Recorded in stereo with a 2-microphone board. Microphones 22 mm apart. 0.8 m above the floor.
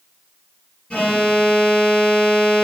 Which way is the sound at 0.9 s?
55° left (ahead or behind).